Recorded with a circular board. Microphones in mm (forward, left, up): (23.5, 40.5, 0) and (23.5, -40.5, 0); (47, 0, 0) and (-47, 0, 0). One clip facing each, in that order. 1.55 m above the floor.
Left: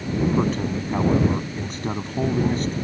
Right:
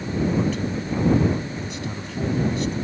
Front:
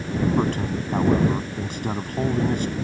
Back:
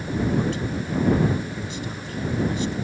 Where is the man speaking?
45° left.